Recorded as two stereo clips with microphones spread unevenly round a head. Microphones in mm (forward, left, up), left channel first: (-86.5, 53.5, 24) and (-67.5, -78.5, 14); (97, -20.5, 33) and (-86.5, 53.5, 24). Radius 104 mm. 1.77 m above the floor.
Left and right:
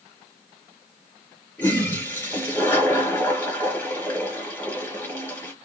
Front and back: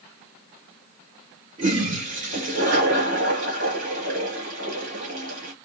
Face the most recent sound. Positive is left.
turn(degrees=150)